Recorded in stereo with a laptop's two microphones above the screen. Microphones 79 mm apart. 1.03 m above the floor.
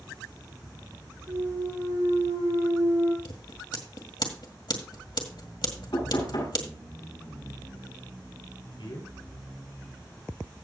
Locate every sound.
1.3 s a clunk: 85° right, 6.5 m
3.2 s scissors: 70° left (ahead or behind), 1.8 m
5.9 s knocking: 65° left (ahead or behind), 7.5 m
8.8 s a man speaking: 80° left, 3 m